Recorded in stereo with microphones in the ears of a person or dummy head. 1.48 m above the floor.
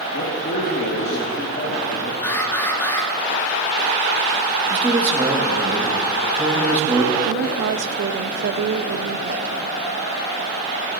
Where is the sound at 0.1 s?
50° left (ahead or behind), 2.5 m.